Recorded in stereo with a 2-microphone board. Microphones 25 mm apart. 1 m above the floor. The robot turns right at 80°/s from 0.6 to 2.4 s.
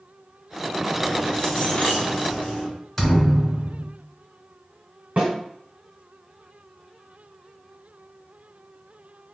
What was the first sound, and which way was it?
Keys jangling, 10° right.